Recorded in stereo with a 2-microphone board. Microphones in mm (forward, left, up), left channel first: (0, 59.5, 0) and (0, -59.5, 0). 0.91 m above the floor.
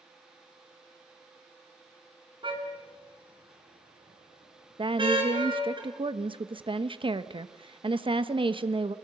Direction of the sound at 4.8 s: 45° right (ahead or behind).